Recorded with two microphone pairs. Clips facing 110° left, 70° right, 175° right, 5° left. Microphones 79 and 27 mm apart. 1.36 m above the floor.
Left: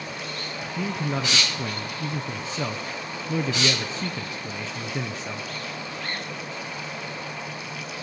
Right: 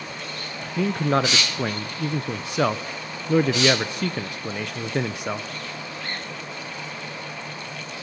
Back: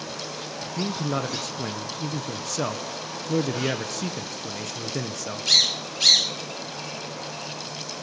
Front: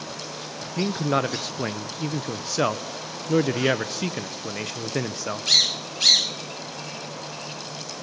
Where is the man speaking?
55° right, 0.7 m.